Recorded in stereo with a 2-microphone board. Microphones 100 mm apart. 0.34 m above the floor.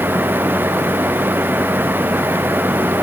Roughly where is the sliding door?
I don't hear a sliding door.